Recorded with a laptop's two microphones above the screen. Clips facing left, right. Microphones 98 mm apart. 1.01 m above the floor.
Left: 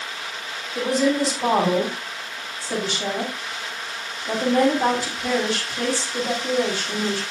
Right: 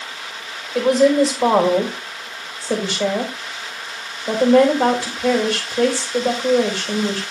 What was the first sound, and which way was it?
A woman speaking, 85° right.